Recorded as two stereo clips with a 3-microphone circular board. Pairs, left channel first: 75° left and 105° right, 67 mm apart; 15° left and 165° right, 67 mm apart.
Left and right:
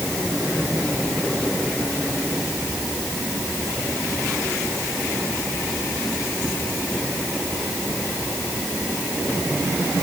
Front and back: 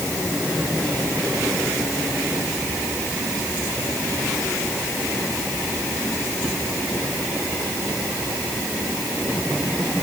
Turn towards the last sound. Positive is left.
No sound to turn to.